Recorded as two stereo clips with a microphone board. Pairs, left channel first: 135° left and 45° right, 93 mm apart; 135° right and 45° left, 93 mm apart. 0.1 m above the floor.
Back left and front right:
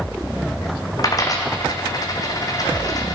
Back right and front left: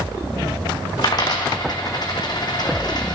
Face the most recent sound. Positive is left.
turn(degrees=-175)